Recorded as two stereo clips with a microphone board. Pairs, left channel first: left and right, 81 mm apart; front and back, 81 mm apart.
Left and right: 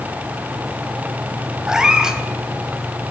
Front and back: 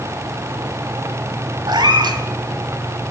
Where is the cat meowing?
170° right, 1.2 m.